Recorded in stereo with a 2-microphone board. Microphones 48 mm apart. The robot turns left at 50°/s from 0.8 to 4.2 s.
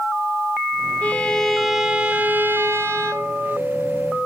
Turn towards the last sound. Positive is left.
turn(degrees=-130)